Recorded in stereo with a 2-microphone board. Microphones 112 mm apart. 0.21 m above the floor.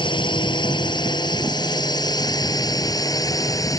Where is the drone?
45° left (ahead or behind); by 3.8 s 30° left (ahead or behind).